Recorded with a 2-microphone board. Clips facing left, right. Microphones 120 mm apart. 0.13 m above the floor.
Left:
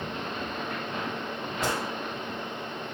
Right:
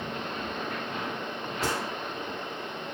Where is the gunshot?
20° left (ahead or behind), 4 m.